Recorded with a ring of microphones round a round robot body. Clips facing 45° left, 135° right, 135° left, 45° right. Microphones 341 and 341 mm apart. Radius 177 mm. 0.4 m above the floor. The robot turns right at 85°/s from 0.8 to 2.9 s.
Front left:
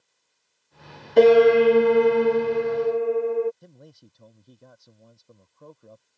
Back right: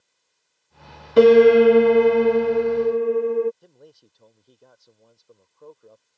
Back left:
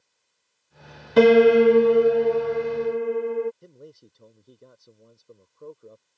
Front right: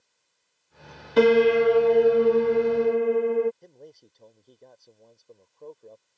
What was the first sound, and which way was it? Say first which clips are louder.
A piano: back right 3 dB, back left 4 dB; 145° left.